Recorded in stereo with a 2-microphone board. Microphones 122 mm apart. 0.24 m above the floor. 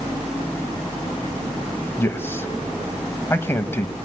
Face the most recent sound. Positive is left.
turn(degrees=20)  # may be behind; listen again after turning